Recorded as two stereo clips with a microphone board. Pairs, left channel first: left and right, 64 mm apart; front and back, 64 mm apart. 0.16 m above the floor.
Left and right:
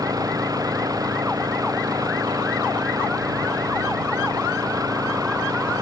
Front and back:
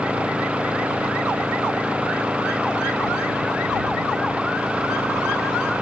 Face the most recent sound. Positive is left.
turn(degrees=-105)